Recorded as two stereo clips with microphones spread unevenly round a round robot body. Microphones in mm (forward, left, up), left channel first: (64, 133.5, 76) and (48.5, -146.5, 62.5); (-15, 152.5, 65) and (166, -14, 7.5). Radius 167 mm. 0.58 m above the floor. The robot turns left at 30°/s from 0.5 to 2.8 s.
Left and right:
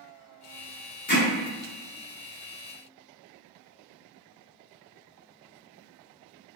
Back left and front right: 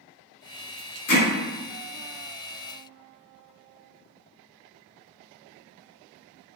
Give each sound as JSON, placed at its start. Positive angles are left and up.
{"t": 1.1, "sound": "hammering", "azimuth_deg": 150, "distance_m": 1.1}